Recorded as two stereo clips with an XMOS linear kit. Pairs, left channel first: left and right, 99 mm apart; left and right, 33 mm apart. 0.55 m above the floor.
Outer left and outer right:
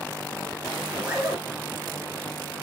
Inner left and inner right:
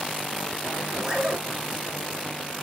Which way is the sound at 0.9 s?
15° right (ahead or behind).